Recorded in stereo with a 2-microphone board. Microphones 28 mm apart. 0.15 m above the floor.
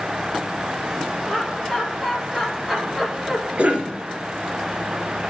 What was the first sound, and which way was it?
Laughter, 5° left (ahead or behind).